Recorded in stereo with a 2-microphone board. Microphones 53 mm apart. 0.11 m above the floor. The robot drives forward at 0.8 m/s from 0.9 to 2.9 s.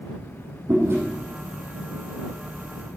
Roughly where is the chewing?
Right.